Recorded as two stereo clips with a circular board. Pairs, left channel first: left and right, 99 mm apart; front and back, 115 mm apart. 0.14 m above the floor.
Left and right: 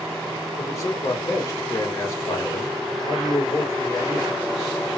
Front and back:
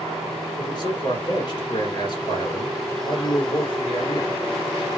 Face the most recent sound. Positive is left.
turn(degrees=40)